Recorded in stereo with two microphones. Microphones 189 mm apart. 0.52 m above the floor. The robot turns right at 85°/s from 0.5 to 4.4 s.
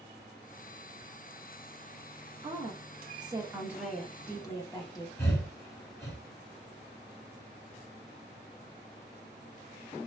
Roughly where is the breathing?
Centre.